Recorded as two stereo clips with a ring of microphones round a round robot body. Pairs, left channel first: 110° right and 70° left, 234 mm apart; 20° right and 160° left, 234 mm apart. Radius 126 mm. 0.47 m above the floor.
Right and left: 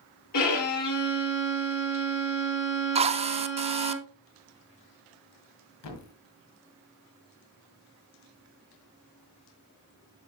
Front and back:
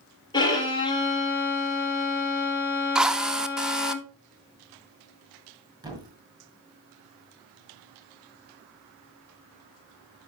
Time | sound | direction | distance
0.3 | a violin | 95° right | 3 m
3.0 | a drill | 75° left | 0.6 m
5.8 | a thud | 130° right | 1.7 m